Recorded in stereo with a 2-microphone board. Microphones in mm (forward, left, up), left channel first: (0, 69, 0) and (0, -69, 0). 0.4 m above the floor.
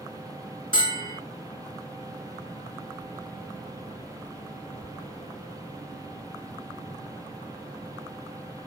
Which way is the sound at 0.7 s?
40° left (ahead or behind).